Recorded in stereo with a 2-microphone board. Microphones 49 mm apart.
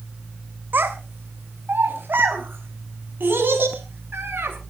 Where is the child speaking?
45° right (ahead or behind), 3 m; by 4.5 s 50° right (ahead or behind), 7 m.